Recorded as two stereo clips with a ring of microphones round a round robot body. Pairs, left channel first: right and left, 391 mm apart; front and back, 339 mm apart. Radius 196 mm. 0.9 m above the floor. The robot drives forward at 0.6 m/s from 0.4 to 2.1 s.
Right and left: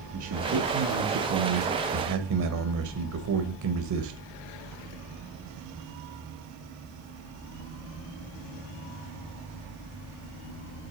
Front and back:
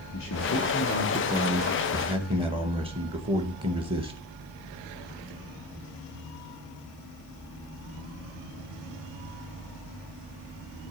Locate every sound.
0.1 s a man speaking: 45° left, 1.3 m; by 4.2 s 110° left, 1.1 m